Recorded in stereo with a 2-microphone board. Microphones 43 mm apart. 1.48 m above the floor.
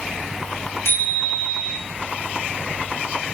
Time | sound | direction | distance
0.8 | a bicycle bell | 80° left | 9.5 m